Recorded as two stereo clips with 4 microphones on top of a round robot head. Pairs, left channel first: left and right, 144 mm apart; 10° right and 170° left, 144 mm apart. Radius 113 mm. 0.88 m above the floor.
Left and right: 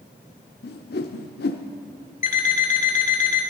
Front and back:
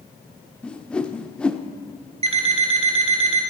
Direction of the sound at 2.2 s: 125° left.